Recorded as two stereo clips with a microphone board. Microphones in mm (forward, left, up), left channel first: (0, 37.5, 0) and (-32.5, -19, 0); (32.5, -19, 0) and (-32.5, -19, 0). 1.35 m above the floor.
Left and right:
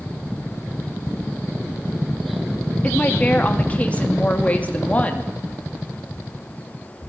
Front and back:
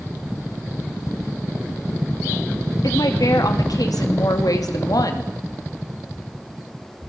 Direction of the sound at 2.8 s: 5° right.